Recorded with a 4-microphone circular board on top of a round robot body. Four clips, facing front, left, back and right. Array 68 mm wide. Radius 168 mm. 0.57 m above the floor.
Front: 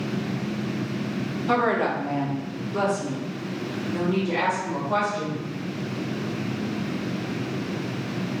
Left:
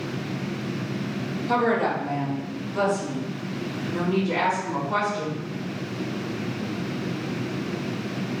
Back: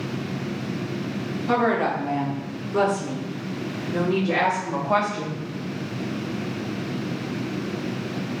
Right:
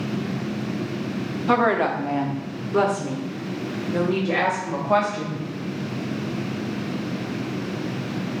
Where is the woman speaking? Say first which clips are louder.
Right 3 dB, back 1 dB; 85° right, 1.7 m; by 5.4 s 120° right, 4.5 m.